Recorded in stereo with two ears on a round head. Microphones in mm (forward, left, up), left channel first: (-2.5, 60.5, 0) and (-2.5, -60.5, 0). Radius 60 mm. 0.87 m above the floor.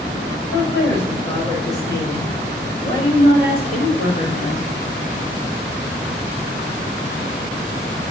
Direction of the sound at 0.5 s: 20° left (ahead or behind).